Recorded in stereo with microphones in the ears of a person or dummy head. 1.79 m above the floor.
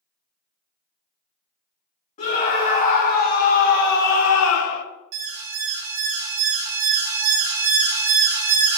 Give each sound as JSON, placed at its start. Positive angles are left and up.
{"t": 2.2, "sound": "a scream", "side_deg": 40, "distance_m": 3.0}
{"t": 5.1, "sound": "an alarm", "side_deg": -55, "distance_m": 1.0}